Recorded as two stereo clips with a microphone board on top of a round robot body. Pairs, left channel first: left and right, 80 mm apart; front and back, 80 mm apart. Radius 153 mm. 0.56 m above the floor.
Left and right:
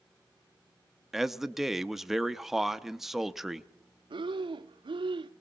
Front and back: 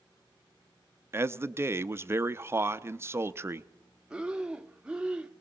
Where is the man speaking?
175° right, 1.0 m.